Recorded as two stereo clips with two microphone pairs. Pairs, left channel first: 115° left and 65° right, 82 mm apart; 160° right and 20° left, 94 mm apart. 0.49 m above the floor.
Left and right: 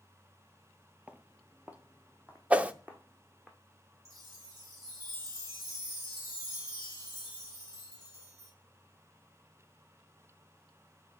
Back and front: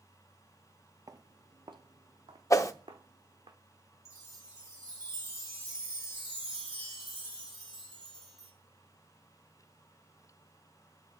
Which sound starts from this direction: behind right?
A whoosh, at 2.5 s.